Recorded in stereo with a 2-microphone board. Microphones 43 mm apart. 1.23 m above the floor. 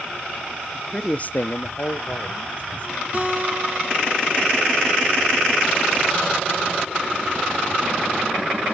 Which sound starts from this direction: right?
A guitar, at 3.1 s.